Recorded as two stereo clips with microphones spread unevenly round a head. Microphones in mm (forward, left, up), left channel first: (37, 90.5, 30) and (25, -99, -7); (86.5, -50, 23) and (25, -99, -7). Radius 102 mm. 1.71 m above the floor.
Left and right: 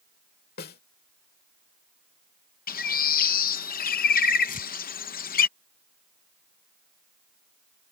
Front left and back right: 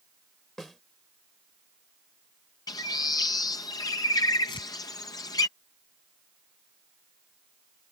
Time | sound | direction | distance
0.6 | a snare drum | 110° left | ?
2.7 | a bird | 60° left | ?
4.5 | tearing paper | 40° left | ?